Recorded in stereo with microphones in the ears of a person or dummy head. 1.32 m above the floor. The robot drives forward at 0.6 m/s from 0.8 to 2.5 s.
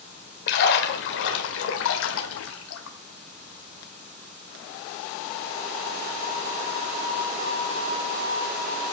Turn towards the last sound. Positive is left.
turn(degrees=75)  # may be behind; listen again after turning